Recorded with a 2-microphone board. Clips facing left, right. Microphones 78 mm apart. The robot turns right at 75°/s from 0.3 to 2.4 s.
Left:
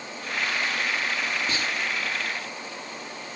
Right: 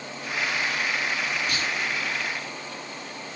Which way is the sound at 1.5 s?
35° left (ahead or behind).